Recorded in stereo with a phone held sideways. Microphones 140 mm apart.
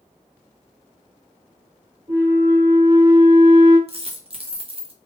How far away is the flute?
About 1.7 m.